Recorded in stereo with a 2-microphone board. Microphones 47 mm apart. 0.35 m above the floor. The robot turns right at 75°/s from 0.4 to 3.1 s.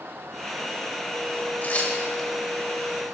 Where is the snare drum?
I don't hear a snare drum.